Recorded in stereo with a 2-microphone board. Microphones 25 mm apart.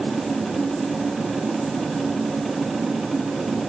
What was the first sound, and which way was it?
Only background noise.